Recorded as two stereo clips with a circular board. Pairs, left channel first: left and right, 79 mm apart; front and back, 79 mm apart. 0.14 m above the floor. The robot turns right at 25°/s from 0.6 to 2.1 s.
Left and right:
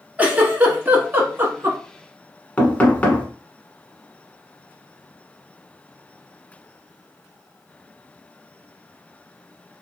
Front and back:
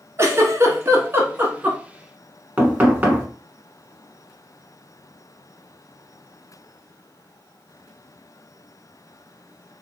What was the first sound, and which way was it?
A giggle, 150° right.